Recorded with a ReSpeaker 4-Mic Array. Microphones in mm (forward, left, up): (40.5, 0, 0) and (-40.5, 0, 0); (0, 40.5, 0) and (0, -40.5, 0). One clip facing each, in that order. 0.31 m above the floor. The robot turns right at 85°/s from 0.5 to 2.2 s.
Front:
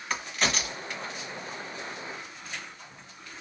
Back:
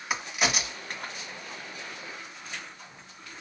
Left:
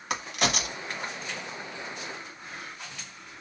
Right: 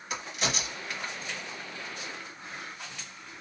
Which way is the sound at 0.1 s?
100° left.